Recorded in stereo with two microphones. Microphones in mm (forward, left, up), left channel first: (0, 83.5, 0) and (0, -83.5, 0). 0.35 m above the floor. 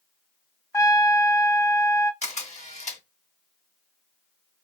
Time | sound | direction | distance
0.7 | a trumpet | 20° left (ahead or behind) | 0.7 m
2.2 | a camera shutter | 45° left (ahead or behind) | 1.3 m